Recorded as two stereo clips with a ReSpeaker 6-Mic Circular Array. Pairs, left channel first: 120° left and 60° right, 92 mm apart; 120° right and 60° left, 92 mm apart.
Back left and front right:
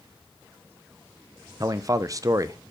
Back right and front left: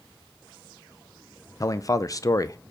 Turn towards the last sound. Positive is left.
turn(degrees=-90)